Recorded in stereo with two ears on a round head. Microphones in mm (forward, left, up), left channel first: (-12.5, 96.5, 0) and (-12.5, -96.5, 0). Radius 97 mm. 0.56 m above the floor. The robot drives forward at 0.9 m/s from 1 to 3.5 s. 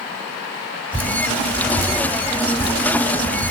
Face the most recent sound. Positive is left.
turn(degrees=10)  # may be behind; listen again after turning